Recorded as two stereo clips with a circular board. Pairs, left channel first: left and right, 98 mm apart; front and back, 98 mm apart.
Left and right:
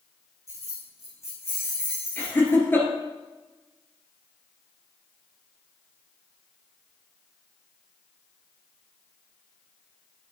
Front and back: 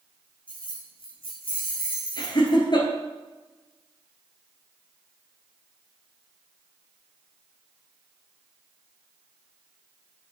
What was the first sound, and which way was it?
Keys jangling, 30° left.